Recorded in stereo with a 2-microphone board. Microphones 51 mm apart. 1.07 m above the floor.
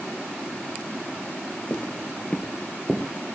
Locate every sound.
1.7 s footsteps: 35° left (ahead or behind), 1.4 m; by 3.1 s 5° right (ahead or behind), 1.5 m